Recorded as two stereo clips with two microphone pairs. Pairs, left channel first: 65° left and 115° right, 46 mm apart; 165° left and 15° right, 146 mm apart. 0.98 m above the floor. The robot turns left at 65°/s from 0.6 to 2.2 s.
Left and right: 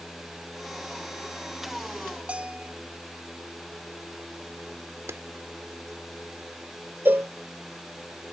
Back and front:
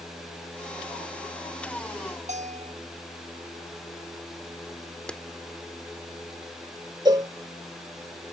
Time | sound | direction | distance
2.3 | a bell | 45° right | ?
5.1 | a clap | 110° right | ?
7.0 | a cowbell | 75° right | ?